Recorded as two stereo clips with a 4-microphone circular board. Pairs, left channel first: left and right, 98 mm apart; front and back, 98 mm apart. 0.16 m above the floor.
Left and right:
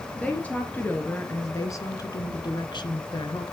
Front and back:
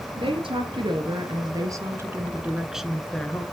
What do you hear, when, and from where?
0.2 s a woman speaking: 170° left, 2.5 m; by 3.4 s 75° left, 1.8 m